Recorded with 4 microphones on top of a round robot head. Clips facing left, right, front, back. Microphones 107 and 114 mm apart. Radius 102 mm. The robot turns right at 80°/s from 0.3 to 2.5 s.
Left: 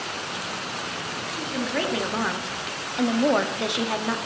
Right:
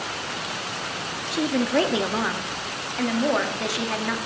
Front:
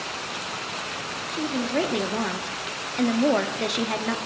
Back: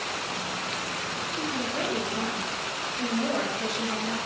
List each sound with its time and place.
1.3 s a woman speaking: 75° right, 0.7 m; by 4.2 s 20° left, 0.7 m